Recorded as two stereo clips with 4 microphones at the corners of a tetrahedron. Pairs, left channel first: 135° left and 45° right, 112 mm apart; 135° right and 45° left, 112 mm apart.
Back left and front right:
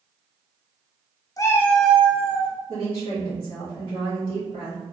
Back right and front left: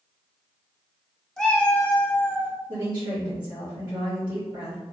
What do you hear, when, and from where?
1.4 s a cat meowing: 145° left, 0.6 m; by 2.5 s 65° right, 0.7 m
2.7 s a woman speaking: 10° right, 1.8 m